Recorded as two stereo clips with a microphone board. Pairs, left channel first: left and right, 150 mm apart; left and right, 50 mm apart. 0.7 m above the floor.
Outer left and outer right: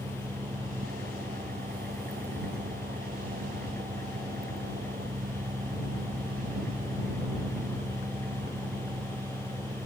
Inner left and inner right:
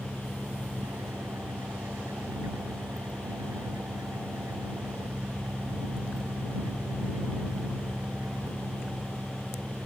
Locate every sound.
0.0 s an engine running: 85° right